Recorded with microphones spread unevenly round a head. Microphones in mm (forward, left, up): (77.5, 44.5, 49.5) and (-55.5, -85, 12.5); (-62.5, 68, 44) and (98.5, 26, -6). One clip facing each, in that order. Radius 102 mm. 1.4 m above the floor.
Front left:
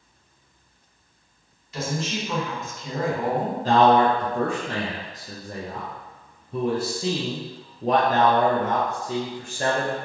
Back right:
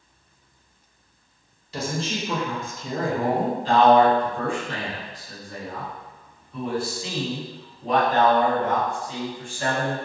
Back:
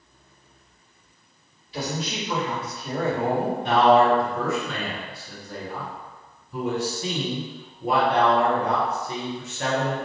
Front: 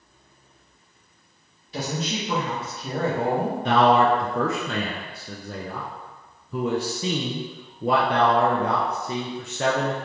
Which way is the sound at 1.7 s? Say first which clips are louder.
Even, front 1 dB; 75° right.